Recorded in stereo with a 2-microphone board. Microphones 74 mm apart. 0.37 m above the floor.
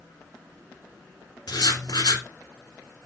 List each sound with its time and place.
1.5 s writing: 75° left (ahead or behind), 1.2 m